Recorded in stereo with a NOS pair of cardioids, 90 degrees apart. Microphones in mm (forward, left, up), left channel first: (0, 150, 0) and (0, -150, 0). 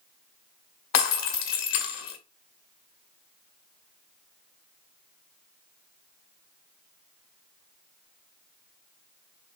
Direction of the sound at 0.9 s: 65° left.